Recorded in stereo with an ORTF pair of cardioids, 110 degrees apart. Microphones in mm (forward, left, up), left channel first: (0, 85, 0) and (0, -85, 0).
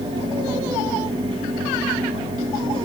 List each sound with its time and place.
0.0 s a fan: 35° right, 3.5 m